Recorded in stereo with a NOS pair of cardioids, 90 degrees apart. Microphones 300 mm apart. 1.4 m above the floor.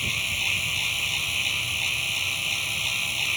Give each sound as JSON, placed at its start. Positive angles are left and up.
{"t": 0.0, "sound": "a machine running", "azimuth_deg": 0}